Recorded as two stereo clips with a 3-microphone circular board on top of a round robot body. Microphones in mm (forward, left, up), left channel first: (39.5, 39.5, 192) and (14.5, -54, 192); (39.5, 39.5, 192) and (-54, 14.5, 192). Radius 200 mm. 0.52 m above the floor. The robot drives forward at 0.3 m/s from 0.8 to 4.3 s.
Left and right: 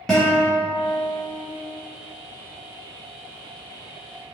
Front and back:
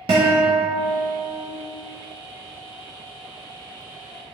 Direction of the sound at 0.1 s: 160° left.